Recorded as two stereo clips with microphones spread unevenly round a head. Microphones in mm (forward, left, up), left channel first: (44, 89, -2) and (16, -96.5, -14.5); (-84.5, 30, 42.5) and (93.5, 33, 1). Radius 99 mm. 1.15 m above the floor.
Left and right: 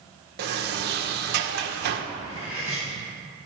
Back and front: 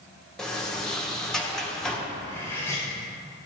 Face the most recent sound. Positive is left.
turn(degrees=105)